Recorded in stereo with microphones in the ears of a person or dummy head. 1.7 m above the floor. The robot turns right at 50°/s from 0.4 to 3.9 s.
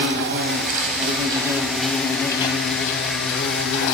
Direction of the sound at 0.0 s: 80° right.